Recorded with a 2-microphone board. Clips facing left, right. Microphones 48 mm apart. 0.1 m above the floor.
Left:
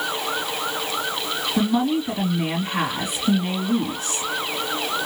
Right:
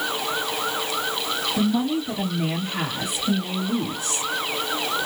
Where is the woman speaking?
45° left (ahead or behind), 2.5 m.